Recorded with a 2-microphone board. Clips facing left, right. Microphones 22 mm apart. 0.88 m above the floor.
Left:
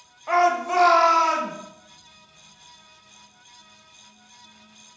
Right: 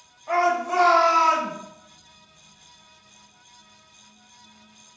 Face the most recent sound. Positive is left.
turn(degrees=-5)  # may be behind; listen again after turning